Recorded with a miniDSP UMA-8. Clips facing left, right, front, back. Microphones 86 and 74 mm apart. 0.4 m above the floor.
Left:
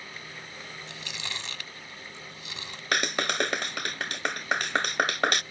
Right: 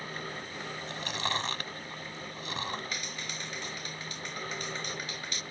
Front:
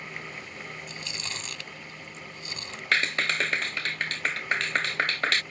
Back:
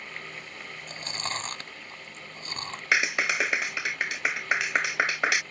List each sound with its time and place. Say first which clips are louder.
0.9 s chewing: right 8 dB, back 3 dB; 135° right
2.9 s a clap: left 12 dB, back 1 dB; 100° left